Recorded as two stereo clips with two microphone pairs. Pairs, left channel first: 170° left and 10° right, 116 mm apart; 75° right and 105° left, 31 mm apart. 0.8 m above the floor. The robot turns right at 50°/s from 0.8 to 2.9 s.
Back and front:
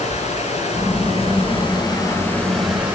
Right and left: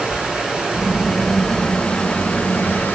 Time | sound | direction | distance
0.0 | running water | 170° left | 8.5 m